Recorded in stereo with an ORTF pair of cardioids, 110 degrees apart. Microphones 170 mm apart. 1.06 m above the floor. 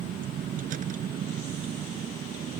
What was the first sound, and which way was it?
A vehicle, 55° right.